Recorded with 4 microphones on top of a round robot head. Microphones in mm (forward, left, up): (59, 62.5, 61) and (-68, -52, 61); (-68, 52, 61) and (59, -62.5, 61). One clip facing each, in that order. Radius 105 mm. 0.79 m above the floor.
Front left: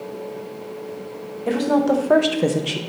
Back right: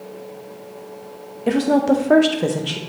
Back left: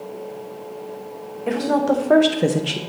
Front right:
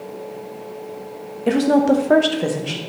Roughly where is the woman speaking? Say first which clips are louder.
Back right 2 dB, front right 4 dB; right.